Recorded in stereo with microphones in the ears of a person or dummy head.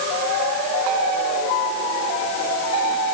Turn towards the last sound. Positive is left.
No sound to turn to.